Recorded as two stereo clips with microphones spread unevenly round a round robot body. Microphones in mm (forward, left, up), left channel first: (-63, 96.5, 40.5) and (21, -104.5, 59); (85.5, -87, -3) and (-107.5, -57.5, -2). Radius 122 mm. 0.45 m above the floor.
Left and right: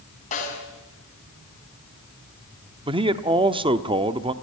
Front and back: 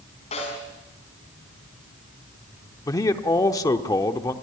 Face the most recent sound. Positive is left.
turn(degrees=-40)